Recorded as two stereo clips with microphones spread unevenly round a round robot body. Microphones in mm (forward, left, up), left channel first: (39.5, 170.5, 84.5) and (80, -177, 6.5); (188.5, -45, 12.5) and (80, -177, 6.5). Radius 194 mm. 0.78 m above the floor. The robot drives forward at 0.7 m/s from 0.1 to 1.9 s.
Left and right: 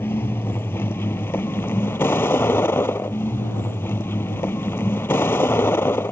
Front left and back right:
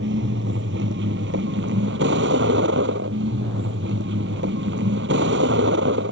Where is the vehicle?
Straight behind.